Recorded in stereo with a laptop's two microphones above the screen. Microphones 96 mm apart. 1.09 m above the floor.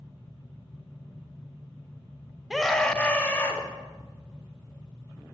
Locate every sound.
2.5 s a scream: centre (ahead or behind), 1.3 m; by 3.6 s 25° left (ahead or behind), 1.9 m